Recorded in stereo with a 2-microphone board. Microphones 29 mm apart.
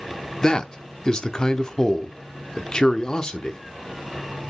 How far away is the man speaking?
About 0.7 m.